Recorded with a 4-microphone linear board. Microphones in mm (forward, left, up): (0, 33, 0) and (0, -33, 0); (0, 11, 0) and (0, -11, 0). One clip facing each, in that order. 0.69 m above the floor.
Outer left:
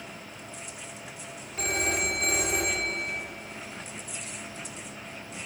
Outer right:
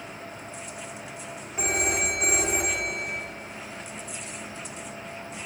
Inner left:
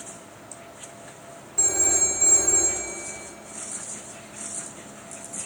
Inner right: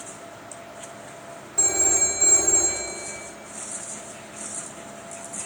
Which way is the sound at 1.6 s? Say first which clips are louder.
Outer right 1 dB, inner right 1 dB; 20° right (ahead or behind).